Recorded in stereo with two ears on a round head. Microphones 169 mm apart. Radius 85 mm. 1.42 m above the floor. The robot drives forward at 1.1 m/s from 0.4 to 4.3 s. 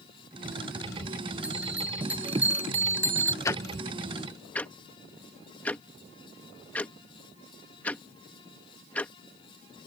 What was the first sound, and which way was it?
A bell, 5° right (ahead or behind).